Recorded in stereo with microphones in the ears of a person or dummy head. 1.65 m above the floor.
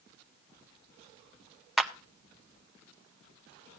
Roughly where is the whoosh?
I don't hear a whoosh.